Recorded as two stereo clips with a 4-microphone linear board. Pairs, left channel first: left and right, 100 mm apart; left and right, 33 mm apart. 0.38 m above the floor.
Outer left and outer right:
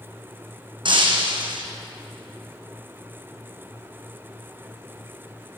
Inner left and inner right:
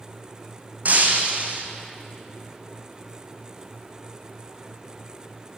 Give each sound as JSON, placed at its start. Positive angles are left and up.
{"t": 0.8, "sound": "breaking glass", "side_deg": -55, "distance_m": 1.9}